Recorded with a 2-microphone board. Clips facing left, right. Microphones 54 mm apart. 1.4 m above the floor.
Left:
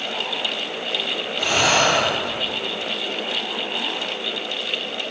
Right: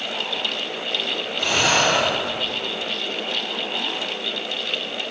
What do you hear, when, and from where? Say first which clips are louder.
1.4 s breathing: left 1 dB; 10° left (ahead or behind), 4.5 m